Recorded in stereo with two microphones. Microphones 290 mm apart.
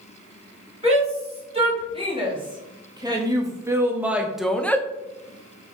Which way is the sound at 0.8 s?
20° right (ahead or behind).